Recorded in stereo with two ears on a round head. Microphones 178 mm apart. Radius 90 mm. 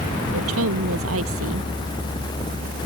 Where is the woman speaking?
80° right.